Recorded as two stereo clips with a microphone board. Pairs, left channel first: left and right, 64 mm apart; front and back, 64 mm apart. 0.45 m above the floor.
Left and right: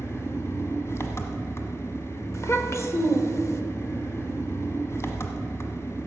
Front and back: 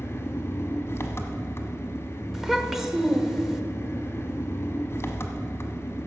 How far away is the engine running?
About 1.0 m.